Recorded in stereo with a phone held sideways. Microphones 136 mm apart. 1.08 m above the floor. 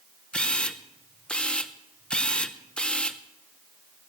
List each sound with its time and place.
0.3 s a camera shutter: 10° left (ahead or behind), 0.9 m